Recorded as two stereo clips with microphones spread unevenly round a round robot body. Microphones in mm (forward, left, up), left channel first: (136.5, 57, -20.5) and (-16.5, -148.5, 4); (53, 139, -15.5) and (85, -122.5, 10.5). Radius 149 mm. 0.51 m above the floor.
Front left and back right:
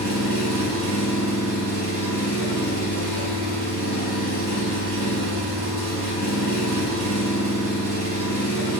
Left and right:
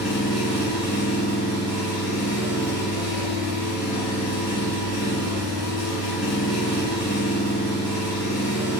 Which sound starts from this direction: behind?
An engine running, at 0.0 s.